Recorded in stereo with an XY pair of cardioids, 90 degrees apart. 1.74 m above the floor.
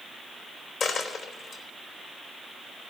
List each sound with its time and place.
0.8 s a dropped coin: 70° left, 3.5 m